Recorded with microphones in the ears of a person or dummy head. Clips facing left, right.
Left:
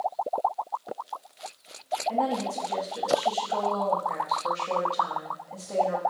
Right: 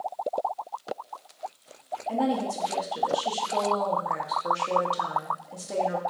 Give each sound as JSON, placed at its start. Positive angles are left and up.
{"t": 2.1, "sound": "a woman speaking", "side_deg": -20, "distance_m": 0.5}